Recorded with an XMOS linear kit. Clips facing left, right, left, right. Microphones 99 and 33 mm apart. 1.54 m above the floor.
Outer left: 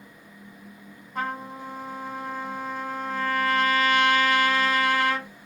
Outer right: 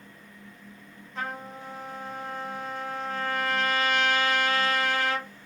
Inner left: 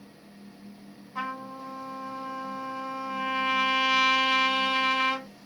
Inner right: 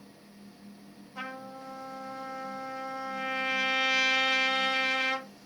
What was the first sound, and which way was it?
A trumpet, 50° left (ahead or behind).